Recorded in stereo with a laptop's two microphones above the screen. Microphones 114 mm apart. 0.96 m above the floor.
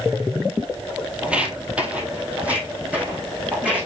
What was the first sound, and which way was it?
Footsteps, 10° right (ahead or behind).